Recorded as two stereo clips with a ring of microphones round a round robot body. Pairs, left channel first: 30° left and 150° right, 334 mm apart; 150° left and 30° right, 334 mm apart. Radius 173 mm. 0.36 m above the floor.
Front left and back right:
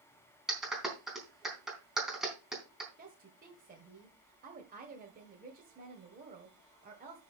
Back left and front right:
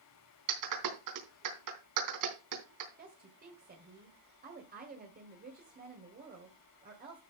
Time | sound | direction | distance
0.5 | a clap | 60° right | 3.5 m
3.0 | a woman speaking | 90° right | 1.9 m